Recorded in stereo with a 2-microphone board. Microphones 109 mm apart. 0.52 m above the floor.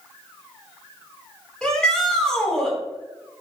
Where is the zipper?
No zipper in this recording.